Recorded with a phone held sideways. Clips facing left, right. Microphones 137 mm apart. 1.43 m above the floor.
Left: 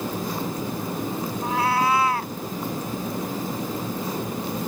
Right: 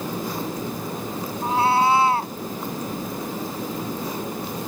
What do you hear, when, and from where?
1.4 s a cat meowing: 30° right (ahead or behind)